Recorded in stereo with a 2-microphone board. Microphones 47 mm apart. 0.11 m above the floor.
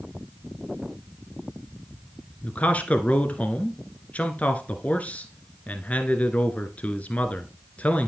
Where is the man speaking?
30° left (ahead or behind), 1.2 m.